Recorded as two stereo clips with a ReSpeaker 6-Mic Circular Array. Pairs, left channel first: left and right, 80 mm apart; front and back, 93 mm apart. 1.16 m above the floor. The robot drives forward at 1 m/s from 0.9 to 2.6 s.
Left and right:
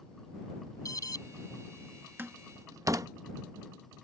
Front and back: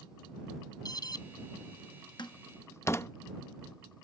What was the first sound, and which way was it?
An alarm, 45° left.